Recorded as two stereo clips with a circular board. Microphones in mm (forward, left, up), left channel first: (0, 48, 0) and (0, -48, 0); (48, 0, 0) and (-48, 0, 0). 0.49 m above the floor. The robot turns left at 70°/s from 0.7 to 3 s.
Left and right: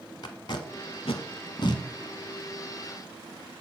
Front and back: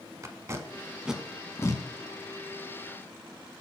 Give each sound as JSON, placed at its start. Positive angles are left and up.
{"t": 0.2, "sound": "tape being pulled", "azimuth_deg": 125, "distance_m": 0.7}